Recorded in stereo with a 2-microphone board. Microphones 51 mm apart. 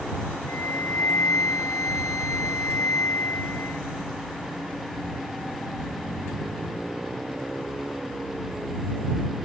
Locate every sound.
0.5 s a flute: 65° left (ahead or behind)